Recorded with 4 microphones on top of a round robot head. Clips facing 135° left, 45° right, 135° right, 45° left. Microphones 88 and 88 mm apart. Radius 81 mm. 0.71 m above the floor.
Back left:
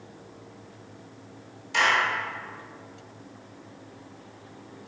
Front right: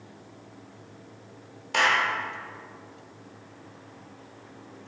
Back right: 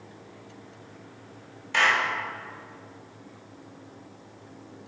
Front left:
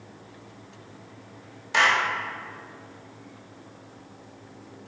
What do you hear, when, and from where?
1.7 s a clap: 25° right, 1.6 m